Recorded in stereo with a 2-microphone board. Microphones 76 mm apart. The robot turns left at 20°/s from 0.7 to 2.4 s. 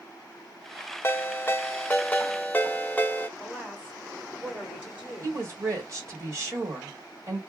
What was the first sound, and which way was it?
A ringtone, 30° left (ahead or behind).